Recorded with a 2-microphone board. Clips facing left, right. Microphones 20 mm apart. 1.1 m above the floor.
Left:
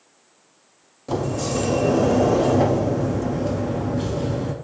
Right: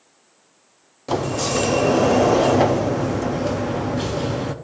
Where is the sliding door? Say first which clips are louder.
Right 2 dB; 30° right (ahead or behind), 0.5 m.